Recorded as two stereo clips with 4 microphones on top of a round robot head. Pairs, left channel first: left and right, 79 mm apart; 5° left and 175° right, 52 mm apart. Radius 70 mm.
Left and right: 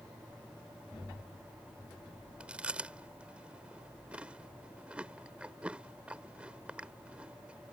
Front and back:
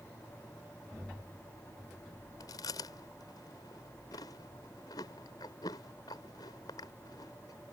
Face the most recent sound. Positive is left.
turn(degrees=-15)